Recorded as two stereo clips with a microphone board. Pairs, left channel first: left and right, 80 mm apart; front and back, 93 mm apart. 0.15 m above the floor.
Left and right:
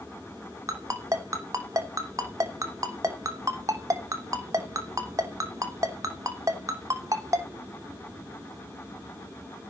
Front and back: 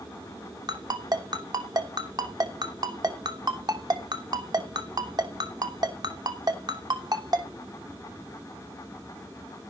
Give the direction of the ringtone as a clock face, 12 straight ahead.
5 o'clock.